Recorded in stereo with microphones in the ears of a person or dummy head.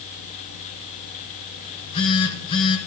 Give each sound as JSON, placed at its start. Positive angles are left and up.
{"t": 1.6, "sound": "a phone buzzing", "side_deg": 35, "distance_m": 1.7}